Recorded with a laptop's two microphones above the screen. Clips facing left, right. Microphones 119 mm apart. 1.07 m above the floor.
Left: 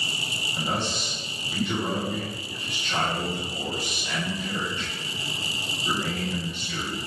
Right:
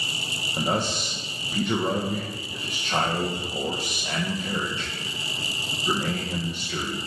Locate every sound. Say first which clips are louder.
0.6 s a man speaking: right 3 dB; 45° right (ahead or behind), 0.7 m